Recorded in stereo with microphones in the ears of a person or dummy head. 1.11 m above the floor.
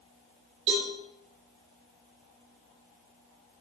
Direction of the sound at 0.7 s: 40° right (ahead or behind).